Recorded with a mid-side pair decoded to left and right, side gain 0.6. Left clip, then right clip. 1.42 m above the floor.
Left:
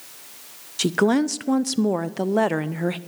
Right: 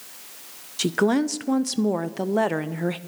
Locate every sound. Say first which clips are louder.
0.8 s a woman speaking: left 2 dB; 10° left, 0.6 m